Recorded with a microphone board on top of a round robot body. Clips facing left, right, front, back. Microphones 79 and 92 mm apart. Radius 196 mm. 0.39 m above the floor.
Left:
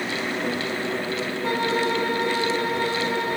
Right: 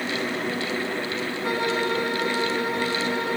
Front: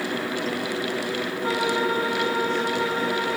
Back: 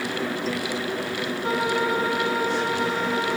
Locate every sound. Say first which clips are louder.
1.4 s a violin: left 1 dB, even; 30° left, 4 m